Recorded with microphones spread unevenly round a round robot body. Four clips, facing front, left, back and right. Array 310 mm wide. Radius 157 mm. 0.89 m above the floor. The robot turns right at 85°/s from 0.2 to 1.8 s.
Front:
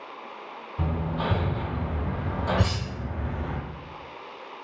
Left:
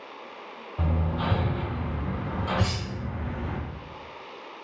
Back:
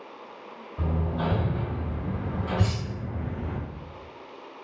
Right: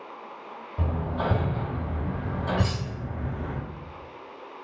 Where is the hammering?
105° right, 1.2 m; by 3.6 s 15° right, 1.2 m.